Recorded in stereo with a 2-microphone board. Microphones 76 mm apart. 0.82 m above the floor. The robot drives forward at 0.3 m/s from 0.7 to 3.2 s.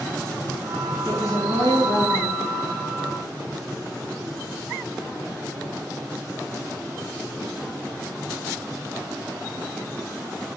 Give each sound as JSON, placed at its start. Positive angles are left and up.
{"t": 1.1, "sound": "a woman speaking", "side_deg": 50, "distance_m": 6.0}